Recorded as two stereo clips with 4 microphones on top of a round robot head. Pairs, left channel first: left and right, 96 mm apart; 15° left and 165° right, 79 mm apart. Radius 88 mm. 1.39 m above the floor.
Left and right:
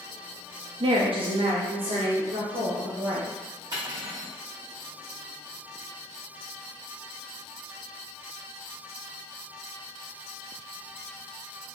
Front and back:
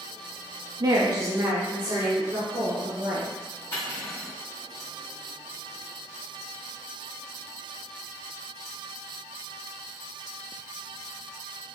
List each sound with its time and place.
0.8 s a woman speaking: 125° right, 0.5 m; by 3.3 s 95° right, 1.7 m
3.7 s cutlery clinking: 40° right, 1.9 m